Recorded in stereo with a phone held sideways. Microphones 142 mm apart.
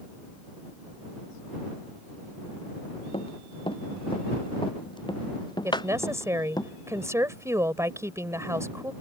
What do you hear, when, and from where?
3.1 s running footsteps: 40° left (ahead or behind); by 6.6 s 30° left (ahead or behind)
5.6 s a woman speaking: 20° right (ahead or behind)